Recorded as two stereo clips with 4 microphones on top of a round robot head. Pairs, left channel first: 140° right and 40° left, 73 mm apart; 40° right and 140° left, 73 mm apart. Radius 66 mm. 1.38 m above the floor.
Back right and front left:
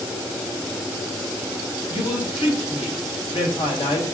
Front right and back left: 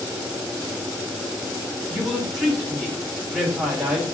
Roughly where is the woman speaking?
Behind right.